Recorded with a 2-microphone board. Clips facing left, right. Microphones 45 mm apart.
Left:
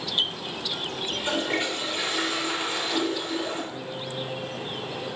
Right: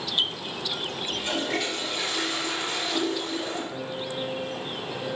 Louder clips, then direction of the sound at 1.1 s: Left 2 dB; 25° left (ahead or behind).